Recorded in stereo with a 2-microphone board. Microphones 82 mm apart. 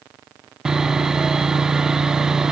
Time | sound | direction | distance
0.7 | sawing | 5° right (ahead or behind) | 0.6 m